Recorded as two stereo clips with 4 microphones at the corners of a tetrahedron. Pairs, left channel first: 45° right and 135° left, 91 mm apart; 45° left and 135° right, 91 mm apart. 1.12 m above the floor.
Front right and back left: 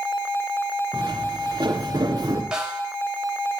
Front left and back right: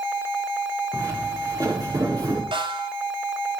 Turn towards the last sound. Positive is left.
turn(degrees=-145)